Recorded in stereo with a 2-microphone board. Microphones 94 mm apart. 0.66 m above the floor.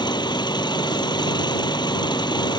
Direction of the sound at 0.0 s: 50° left (ahead or behind).